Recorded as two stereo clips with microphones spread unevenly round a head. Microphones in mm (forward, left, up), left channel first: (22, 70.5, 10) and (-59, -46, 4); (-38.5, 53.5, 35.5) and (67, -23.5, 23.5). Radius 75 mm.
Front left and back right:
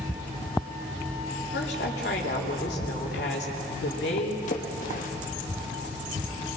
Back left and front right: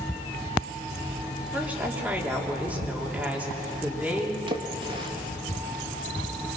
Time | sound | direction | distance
1.5 | a woman speaking | 45° left | 3.5 m
4.5 | a splash | 15° left | 1.7 m